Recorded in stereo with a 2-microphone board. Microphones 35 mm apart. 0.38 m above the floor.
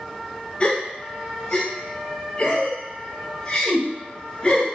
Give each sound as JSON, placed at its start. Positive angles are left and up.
{"t": 0.6, "sound": "a gasp", "side_deg": 30, "distance_m": 1.9}